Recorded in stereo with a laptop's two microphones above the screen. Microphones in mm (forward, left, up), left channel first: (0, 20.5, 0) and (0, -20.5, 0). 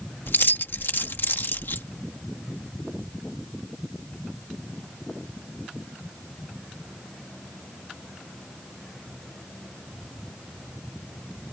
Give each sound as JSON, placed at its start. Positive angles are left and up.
{"t": 0.3, "sound": "keys jangling", "side_deg": 65}